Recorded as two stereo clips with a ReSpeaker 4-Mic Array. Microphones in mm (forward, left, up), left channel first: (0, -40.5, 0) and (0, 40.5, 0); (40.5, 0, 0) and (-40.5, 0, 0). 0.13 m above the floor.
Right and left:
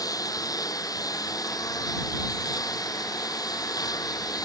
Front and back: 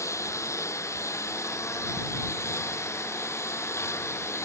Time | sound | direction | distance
0.0 | a lawn mower | 50° right | ?